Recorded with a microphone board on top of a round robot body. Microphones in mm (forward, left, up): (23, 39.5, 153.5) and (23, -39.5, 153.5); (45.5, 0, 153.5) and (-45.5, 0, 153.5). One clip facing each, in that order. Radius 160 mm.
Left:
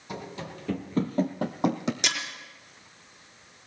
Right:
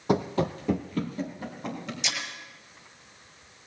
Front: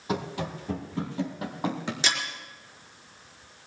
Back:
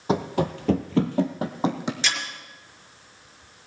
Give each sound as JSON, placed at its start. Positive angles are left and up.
{"t": 0.1, "sound": "running footsteps", "azimuth_deg": -120, "distance_m": 0.9}
{"t": 2.0, "sound": "breaking glass", "azimuth_deg": 75, "distance_m": 4.5}